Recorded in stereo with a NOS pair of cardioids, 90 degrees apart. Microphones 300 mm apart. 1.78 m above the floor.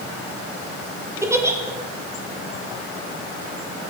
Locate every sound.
1.2 s a giggle: 10° right, 1.1 m